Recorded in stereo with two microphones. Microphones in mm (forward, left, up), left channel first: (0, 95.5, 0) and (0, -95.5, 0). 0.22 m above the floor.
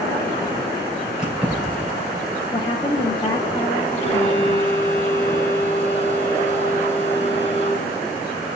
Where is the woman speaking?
25° left (ahead or behind), 1.3 m.